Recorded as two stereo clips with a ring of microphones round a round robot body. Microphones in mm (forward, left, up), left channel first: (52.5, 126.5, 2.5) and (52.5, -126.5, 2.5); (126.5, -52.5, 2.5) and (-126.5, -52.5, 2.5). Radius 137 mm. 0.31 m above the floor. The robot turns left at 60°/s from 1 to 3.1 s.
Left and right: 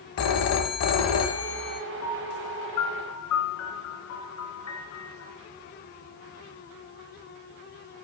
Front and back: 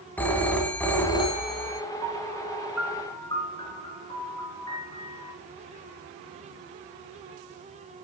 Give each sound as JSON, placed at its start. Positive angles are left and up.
{"t": 0.2, "sound": "a phone ringing", "azimuth_deg": 85, "distance_m": 1.7}
{"t": 2.0, "sound": "a piano", "azimuth_deg": 140, "distance_m": 3.5}